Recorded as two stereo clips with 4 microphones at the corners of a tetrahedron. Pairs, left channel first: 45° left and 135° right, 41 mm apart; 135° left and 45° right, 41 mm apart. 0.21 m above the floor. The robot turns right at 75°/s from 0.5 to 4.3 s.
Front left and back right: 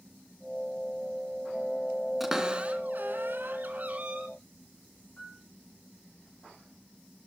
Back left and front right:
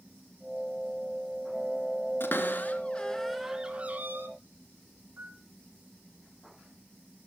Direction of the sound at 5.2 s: 5° right.